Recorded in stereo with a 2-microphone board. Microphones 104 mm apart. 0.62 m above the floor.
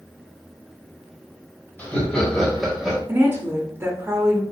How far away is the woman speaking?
About 0.9 m.